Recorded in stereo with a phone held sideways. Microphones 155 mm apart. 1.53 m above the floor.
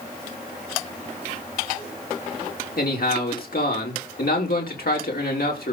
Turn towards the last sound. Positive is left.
turn(degrees=75)  # may be behind; listen again after turning